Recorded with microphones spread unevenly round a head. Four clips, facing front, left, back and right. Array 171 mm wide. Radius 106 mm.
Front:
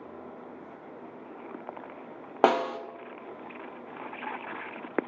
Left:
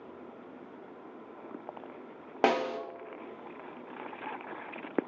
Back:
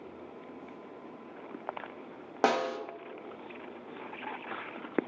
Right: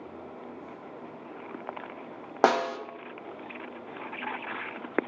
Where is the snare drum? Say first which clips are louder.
Right 4 dB, front 4 dB; 30° right, 0.9 m.